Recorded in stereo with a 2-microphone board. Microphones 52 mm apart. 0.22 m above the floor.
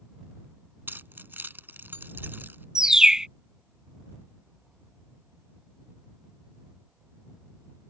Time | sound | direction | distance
0.9 | keys jangling | 45° right (ahead or behind) | ?
2.8 | a bird | 10° right (ahead or behind) | ?